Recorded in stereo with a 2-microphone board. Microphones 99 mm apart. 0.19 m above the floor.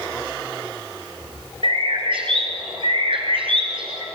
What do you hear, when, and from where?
1.6 s a bird: 60° right (ahead or behind), 3 m